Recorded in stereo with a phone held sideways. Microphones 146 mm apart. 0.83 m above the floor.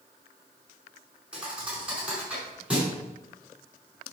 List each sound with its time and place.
1.3 s a thud: 5° right (ahead or behind), 5 m